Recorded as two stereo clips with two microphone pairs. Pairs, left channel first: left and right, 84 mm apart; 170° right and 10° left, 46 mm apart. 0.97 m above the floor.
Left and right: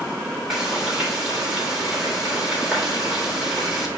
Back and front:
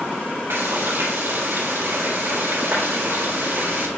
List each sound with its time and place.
0.5 s frying: 10° right, 2.5 m